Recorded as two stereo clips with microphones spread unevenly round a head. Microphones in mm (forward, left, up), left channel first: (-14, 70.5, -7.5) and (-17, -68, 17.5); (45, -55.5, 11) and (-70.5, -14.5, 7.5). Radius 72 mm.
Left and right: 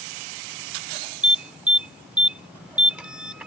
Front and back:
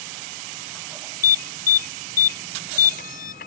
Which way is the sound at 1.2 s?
10° right.